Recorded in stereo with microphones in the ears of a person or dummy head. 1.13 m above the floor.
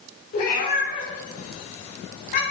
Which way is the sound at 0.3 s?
55° left (ahead or behind).